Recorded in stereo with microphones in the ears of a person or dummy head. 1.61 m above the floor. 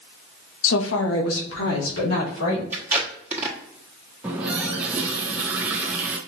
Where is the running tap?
15° right (ahead or behind), 0.7 m.